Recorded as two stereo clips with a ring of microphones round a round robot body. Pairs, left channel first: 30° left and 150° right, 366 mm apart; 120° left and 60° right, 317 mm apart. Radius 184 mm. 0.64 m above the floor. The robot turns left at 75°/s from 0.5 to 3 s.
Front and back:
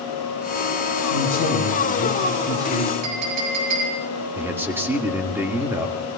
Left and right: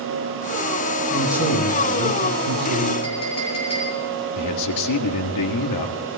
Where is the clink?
165° right, 6 m.